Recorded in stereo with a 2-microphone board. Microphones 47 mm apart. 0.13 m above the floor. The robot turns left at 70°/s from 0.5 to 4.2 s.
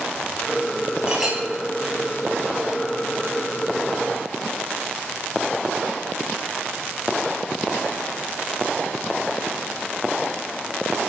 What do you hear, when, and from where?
1.1 s a clink: 20° right (ahead or behind), 1.8 m; by 1.4 s centre (ahead or behind), 1.8 m